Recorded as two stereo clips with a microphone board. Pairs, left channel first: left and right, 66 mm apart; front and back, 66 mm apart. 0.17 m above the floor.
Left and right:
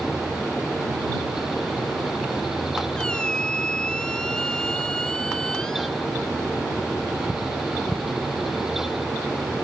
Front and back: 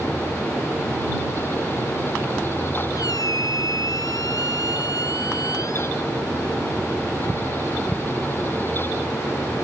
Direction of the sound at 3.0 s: 10° left.